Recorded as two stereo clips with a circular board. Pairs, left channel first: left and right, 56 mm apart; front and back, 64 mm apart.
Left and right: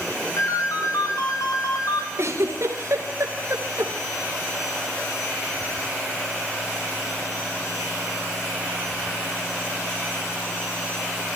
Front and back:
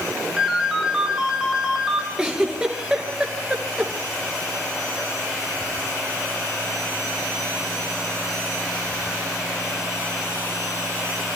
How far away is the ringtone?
About 3.5 m.